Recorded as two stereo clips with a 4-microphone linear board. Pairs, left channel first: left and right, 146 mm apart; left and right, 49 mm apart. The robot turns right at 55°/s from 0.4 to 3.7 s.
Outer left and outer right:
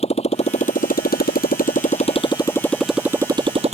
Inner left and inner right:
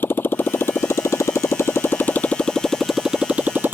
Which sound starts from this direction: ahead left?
A motorcycle, at 0.0 s.